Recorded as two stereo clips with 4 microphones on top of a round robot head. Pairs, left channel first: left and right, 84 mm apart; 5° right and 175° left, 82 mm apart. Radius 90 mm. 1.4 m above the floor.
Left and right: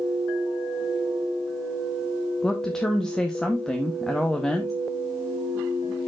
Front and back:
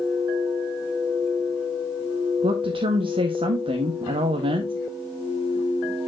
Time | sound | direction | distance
2.4 | a woman speaking | 175° left | 1.0 m